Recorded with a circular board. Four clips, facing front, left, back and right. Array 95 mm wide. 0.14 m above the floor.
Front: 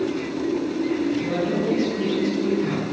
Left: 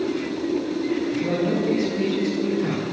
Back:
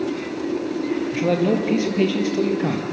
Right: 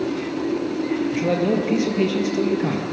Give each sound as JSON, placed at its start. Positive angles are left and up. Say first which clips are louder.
{"t": 1.1, "sound": "a man speaking", "louder": "right 2 dB, back 3 dB", "azimuth_deg": -145, "distance_m": 4.0}